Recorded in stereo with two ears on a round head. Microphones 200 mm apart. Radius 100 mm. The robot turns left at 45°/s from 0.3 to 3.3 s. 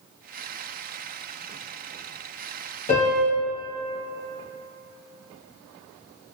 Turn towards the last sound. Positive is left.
turn(degrees=50)  # may be behind; listen again after turning